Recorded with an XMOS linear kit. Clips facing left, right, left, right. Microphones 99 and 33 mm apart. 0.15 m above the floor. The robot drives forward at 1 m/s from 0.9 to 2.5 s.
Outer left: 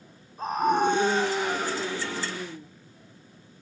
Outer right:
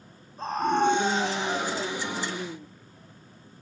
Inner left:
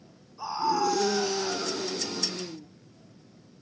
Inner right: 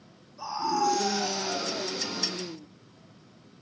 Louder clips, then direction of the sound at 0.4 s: Outer left 1 dB, inner left 1 dB; 10° left (ahead or behind).